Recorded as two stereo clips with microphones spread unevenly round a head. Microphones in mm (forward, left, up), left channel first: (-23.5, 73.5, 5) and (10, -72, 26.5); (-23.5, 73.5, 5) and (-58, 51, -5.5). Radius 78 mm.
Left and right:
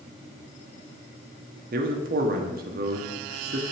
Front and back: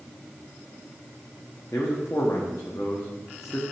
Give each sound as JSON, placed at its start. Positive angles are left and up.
{"t": 1.7, "sound": "a man speaking", "azimuth_deg": -40, "distance_m": 1.0}